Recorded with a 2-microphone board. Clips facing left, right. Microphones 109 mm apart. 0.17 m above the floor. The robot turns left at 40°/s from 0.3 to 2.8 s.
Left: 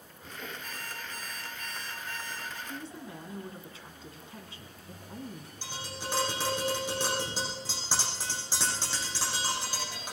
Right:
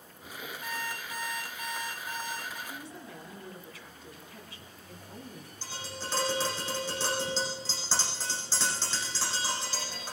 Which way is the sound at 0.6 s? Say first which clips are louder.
Right 4 dB; 110° right.